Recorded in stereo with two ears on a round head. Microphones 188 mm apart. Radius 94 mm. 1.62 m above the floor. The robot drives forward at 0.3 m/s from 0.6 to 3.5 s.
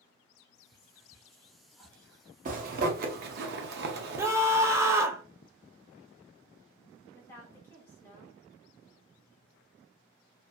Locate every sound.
0.4 s whispering: 10° left (ahead or behind), 0.9 m; by 2.2 s 5° left (ahead or behind), 1.4 m
2.5 s a zipper: 40° right (ahead or behind), 0.7 m; by 4.3 s 50° right (ahead or behind), 0.6 m
4.2 s a scream: 15° right (ahead or behind), 0.5 m
7.1 s a woman speaking: 10° left (ahead or behind), 1.1 m